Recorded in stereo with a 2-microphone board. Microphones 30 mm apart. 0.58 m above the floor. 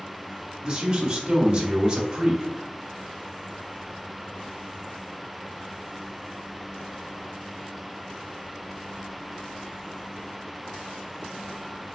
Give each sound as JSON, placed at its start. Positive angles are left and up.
{"t": 0.6, "sound": "a man speaking", "side_deg": -20, "distance_m": 1.0}